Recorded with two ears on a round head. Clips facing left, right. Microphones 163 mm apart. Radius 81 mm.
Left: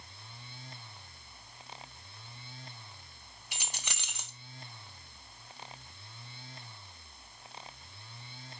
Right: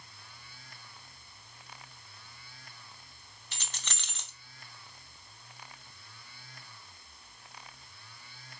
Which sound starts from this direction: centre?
Keys jangling, at 3.5 s.